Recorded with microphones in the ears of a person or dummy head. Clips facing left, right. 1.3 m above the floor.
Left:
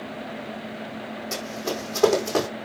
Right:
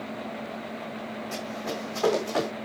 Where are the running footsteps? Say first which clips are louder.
Left 5 dB; 55° left (ahead or behind), 4 m; by 2.5 s 60° left (ahead or behind), 4.5 m.